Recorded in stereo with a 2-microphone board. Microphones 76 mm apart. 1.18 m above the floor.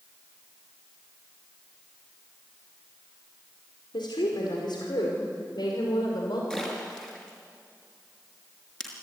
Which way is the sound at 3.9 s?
80° left.